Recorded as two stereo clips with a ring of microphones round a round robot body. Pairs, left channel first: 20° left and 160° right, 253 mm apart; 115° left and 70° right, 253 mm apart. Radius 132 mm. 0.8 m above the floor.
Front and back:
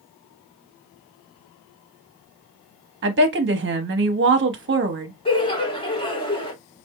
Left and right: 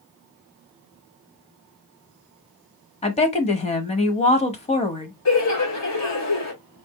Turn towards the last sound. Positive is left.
turn(degrees=90)